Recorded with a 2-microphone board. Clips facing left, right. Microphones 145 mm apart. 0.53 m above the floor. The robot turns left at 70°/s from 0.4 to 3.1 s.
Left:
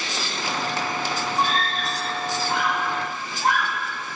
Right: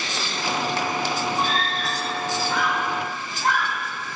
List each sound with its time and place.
1.4 s a scream: 40° left (ahead or behind), 6.5 m; by 3.8 s 15° left (ahead or behind), 6.5 m